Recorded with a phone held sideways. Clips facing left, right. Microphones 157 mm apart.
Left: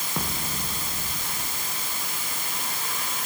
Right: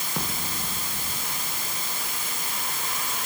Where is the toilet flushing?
No toilet flushing in this recording.